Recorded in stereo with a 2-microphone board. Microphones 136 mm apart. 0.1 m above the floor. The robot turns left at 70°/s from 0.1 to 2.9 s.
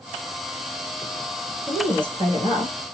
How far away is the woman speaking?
About 1.6 m.